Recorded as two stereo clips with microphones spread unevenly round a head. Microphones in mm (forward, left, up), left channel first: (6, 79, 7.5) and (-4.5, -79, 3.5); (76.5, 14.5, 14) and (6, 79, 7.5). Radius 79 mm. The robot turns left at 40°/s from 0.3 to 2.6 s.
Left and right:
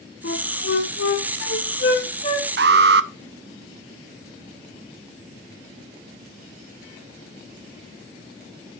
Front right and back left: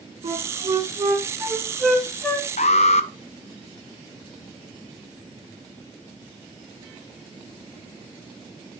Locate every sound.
0.2 s a flute: 115° left, 2.5 m; by 2.5 s 25° left, 2.5 m
2.6 s an alarm: 70° right, 0.7 m